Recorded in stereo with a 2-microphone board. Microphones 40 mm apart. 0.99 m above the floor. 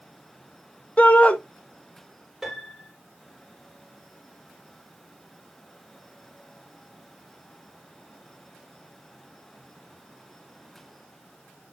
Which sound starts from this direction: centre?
A piano, at 2.4 s.